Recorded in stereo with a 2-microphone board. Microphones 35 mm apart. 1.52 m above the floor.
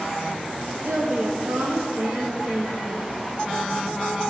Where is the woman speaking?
70° right (ahead or behind), 0.8 m.